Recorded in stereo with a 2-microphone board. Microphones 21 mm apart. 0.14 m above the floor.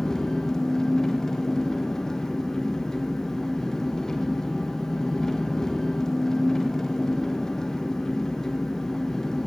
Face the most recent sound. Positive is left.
turn(degrees=20)  # may be behind; listen again after turning